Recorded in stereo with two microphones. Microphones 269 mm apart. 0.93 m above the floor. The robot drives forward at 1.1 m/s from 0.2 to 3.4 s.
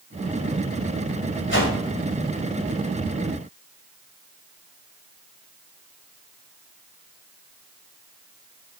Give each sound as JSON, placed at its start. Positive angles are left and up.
{"t": 1.5, "sound": "a whoosh", "side_deg": 45, "distance_m": 2.5}